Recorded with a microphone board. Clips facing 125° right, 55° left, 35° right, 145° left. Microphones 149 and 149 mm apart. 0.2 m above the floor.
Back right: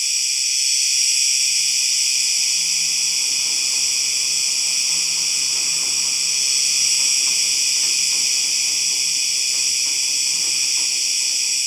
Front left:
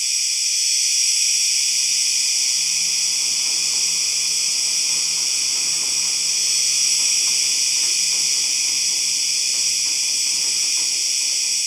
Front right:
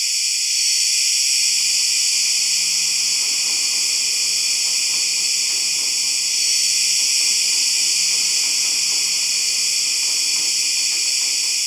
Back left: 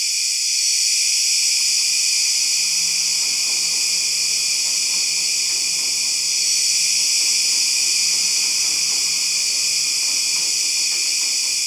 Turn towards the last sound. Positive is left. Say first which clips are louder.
# back right 1 dB, front right 1 dB
turn(degrees=-35)